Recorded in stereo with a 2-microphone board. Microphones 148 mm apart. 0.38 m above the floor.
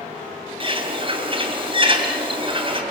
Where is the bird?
35° right (ahead or behind), 3 m.